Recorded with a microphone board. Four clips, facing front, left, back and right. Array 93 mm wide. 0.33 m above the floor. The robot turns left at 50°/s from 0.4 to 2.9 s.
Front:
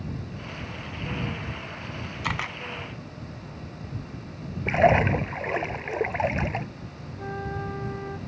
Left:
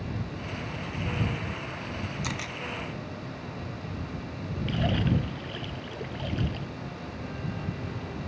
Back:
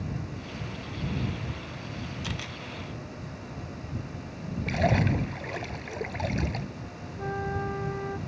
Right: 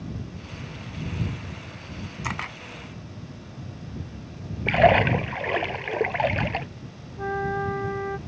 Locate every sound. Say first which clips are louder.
2.2 s a camera shutter: right 3 dB, front 7 dB; 30° right; by 2.6 s 45° right
4.7 s a splash: right 11 dB, front 7 dB; 60° right
7.2 s a flute: right 13 dB, back 1 dB; 95° right